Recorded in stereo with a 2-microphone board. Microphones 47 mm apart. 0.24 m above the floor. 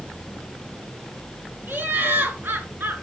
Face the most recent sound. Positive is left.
turn(degrees=-45)  # may be behind; listen again after turning